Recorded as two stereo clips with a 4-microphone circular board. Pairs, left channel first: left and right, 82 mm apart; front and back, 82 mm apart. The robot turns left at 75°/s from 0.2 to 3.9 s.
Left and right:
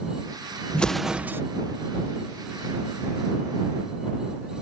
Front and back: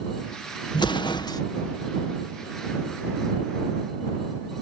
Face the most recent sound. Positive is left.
turn(degrees=140)